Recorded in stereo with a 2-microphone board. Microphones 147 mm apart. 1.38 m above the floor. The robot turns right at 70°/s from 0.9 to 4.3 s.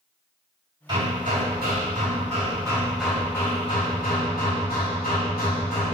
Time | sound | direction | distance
0.9 | hammering | 145° right | 2.5 m